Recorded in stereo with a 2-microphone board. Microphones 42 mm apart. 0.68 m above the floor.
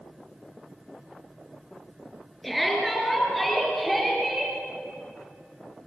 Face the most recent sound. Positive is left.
turn(degrees=10)  # may be behind; listen again after turning